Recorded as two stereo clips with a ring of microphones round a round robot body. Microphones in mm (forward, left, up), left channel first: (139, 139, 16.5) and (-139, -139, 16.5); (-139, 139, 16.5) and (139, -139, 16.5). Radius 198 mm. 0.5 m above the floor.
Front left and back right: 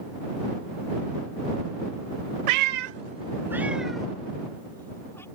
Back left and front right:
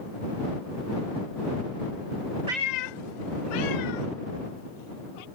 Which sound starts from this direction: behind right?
A cat meowing, at 2.5 s.